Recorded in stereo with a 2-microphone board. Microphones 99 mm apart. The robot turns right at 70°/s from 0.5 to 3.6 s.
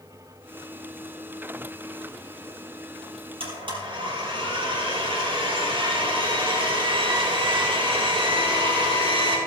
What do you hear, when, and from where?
3.4 s a blender: 60° right (ahead or behind), 3.5 m; by 9.4 s 55° right (ahead or behind), 3.5 m